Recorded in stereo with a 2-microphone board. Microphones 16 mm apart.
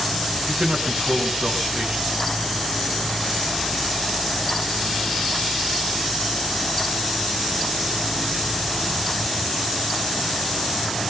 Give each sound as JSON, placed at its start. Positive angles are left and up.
{"t": 0.5, "sound": "a man speaking", "side_deg": -50, "distance_m": 6.0}